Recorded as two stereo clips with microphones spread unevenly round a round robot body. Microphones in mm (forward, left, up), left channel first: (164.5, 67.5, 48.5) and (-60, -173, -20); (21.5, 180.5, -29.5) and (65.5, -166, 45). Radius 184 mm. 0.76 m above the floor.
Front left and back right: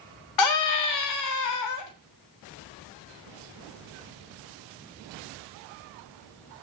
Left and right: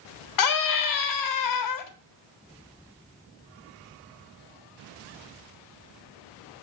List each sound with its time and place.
0.4 s a scream: 90° left, 1.8 m